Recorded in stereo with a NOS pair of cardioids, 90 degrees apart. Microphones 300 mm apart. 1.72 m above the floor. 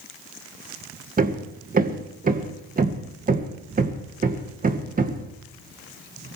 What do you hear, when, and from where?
1.2 s hammering: 30° right, 1.8 m